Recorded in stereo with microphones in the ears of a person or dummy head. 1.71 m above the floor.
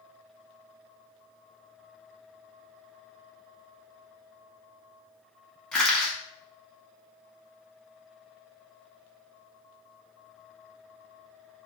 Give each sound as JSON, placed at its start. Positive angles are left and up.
{"t": 5.7, "sound": "crushing", "side_deg": 0, "distance_m": 1.3}